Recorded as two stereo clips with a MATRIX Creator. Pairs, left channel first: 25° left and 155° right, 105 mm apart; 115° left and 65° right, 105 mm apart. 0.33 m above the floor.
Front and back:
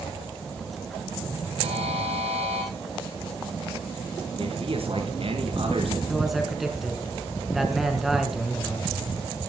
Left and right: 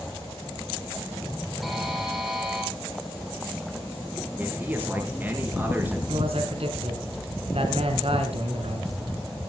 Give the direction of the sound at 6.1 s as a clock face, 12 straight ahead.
2 o'clock.